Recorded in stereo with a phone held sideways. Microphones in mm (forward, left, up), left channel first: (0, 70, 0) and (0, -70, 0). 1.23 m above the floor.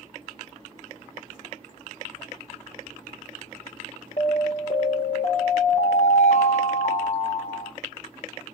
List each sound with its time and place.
4.2 s an alarm: 55° left (ahead or behind), 1.6 m